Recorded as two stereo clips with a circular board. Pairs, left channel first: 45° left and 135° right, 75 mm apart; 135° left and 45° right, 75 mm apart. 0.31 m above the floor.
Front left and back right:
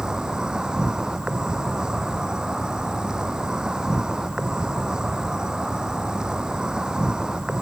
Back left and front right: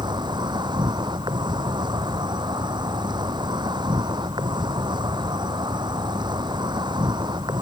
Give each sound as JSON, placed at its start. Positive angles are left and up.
{"t": 0.0, "sound": "an insect", "azimuth_deg": -55}